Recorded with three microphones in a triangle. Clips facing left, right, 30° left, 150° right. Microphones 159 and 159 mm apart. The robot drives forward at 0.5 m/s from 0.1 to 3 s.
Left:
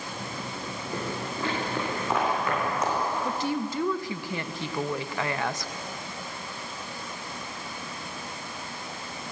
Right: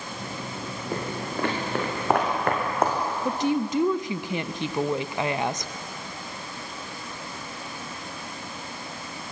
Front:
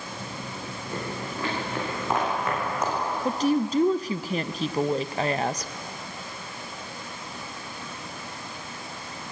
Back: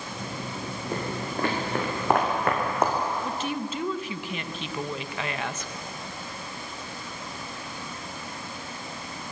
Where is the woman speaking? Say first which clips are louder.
Right 4 dB, front 7 dB; 20° right, 0.6 m.